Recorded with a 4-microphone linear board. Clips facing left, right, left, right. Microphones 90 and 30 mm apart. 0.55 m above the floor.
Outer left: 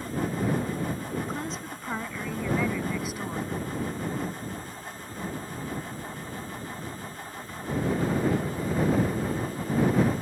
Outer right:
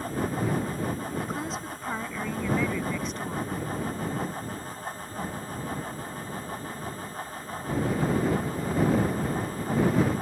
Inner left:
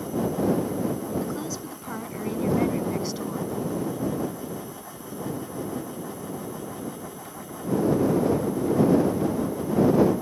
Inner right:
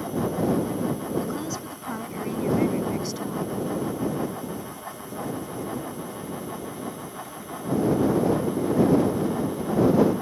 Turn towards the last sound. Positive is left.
turn(degrees=10)  # may be behind; listen again after turning